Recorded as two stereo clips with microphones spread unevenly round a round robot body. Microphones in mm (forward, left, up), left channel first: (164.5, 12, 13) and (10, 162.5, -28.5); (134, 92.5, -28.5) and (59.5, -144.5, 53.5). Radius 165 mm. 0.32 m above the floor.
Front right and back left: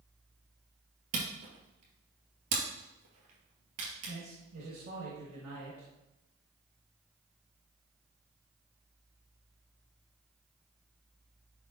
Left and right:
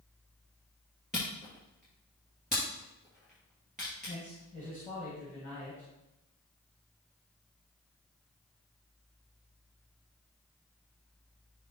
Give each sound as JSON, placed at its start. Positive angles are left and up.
{"t": 1.1, "sound": "a camera shutter", "azimuth_deg": 165, "distance_m": 1.9}
{"t": 4.1, "sound": "a man speaking", "azimuth_deg": 150, "distance_m": 3.0}